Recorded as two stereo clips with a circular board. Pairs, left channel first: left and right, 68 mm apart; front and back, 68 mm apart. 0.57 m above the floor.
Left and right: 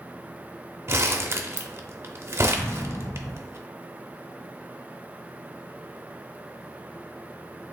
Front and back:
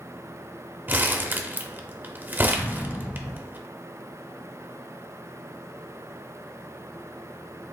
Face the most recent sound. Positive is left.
turn(degrees=60)